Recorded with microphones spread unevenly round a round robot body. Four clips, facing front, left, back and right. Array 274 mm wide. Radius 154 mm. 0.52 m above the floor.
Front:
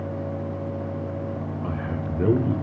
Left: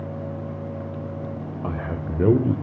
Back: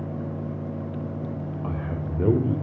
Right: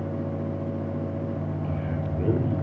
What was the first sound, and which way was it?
A man speaking, 80° left.